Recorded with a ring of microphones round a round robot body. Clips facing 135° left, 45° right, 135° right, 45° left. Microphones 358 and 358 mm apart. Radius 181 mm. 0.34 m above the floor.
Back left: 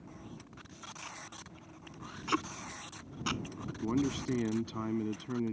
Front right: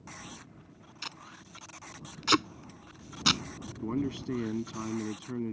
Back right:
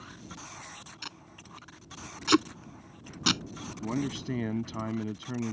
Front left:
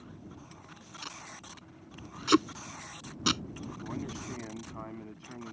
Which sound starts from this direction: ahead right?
Tape being pulled, at 1.0 s.